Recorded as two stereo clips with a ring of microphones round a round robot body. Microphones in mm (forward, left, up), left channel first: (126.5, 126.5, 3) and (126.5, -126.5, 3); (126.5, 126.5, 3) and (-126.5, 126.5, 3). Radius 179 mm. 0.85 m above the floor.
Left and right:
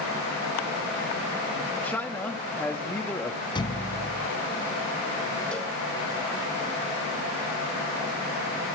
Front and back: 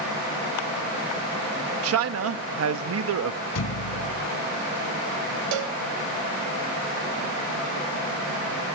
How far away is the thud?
About 2 m.